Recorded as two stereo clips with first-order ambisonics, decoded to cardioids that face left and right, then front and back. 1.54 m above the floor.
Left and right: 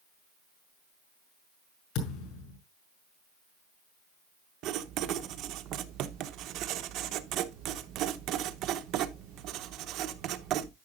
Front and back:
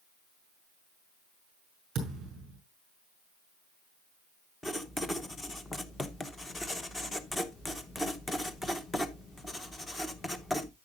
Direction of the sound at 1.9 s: 115° left.